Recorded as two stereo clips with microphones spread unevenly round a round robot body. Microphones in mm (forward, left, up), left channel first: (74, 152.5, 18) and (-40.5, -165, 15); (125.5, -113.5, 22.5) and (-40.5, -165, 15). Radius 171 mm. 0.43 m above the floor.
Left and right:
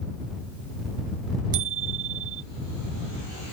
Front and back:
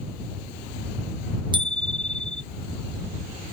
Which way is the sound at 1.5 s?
100° right.